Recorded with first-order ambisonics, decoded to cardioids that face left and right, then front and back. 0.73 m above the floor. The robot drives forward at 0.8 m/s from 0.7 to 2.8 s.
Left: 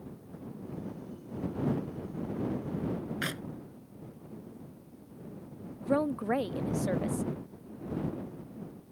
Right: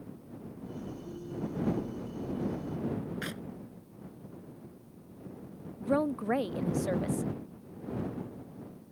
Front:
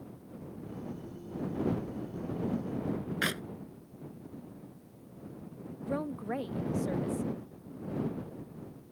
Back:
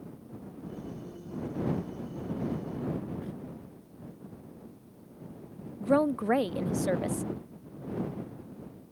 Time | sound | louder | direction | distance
3.2 | a clap | left 4 dB, front 11 dB | 15° left | ?
5.8 | a woman speaking | even, back 11 dB | 175° right | ?